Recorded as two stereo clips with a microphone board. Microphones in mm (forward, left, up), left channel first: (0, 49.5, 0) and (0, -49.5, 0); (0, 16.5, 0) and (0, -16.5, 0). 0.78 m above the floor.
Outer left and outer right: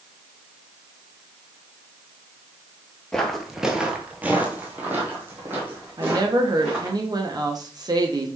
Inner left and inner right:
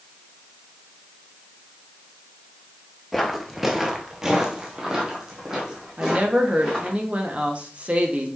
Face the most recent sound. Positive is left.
turn(degrees=-40)  # may be behind; listen again after turning